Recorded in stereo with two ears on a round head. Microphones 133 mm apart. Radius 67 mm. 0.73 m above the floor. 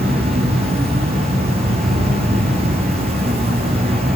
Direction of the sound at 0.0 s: 40° right (ahead or behind).